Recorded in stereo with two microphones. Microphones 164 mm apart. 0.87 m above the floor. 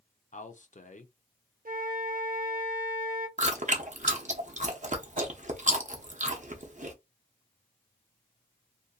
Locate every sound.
0.3 s a man speaking: 50° left (ahead or behind), 0.5 m
1.6 s a flute: 55° right (ahead or behind), 0.5 m
3.4 s chewing: 45° right (ahead or behind), 0.6 m